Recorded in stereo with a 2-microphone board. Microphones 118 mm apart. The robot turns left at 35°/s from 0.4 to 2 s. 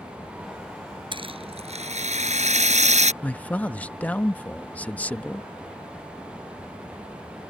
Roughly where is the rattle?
Ahead right.